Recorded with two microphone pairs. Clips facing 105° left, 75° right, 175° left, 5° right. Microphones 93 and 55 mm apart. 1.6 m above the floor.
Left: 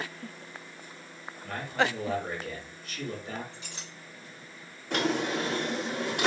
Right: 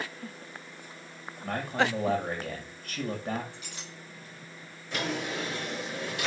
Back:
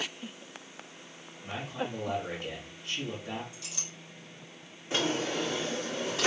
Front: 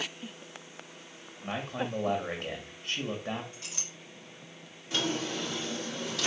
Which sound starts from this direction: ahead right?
A man speaking, at 1.4 s.